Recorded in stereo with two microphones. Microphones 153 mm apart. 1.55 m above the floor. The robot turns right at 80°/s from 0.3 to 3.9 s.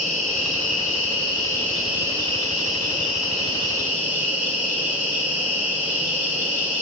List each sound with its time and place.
0.0 s an insect: 60° left, 6.5 m; by 6.8 s 10° right, 6.5 m